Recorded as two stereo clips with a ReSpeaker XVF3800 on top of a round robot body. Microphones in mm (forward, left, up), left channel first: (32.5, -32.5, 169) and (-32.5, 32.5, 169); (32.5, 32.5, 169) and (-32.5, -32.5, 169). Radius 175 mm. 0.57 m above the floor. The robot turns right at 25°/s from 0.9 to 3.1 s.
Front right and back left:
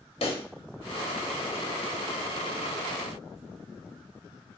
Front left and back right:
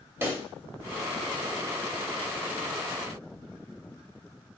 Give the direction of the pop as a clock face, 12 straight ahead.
2 o'clock.